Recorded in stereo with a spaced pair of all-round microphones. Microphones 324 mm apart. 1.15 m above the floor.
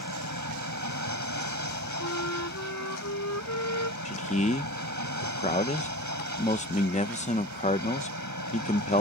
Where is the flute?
55° left (ahead or behind).